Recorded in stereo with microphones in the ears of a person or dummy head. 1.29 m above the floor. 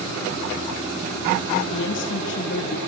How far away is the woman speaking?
About 0.8 m.